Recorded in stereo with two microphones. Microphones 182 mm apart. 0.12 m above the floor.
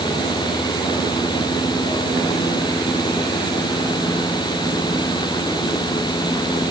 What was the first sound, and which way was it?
Only background noise.